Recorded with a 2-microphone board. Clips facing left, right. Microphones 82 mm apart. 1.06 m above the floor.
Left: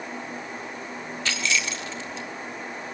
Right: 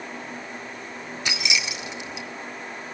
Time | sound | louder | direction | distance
1.2 | keys jangling | left 1 dB | 15° right (ahead or behind) | 1.9 m